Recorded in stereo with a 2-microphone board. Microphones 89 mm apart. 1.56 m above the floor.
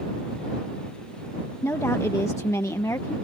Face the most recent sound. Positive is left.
turn(degrees=40)  # may be behind; listen again after turning